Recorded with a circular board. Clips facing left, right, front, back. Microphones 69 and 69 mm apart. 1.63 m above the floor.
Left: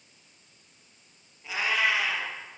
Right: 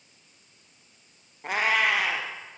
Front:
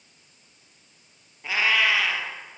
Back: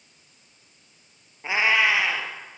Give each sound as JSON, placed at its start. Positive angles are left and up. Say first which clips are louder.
{"t": 1.4, "sound": "a cat meowing", "louder": "right 3 dB, back 2 dB", "azimuth_deg": -115, "distance_m": 3.5}